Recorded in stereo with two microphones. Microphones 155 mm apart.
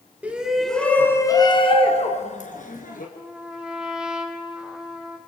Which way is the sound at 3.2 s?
5° right (ahead or behind).